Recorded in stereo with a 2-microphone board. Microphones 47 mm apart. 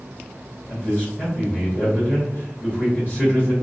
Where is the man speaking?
30° left (ahead or behind), 1.7 m.